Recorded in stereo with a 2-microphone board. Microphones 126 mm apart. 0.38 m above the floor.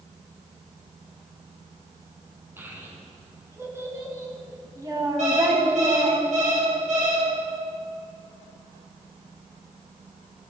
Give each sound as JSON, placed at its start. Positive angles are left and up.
{"t": 2.6, "sound": "a child speaking", "side_deg": -15, "distance_m": 3.5}
{"t": 5.2, "sound": "an alarm clock", "side_deg": -65, "distance_m": 5.0}